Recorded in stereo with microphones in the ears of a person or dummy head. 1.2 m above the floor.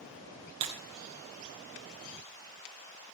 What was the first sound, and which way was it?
Breaking glass, 35° right (ahead or behind).